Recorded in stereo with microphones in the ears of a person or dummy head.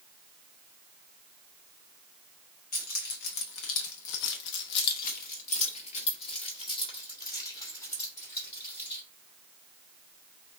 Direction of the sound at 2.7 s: 45° left (ahead or behind).